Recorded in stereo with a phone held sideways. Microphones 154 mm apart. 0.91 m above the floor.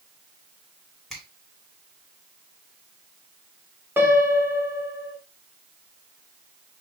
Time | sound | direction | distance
1.1 | a finger snap | centre (ahead or behind) | 3.5 m
4.0 | a piano | 15° right (ahead or behind) | 2 m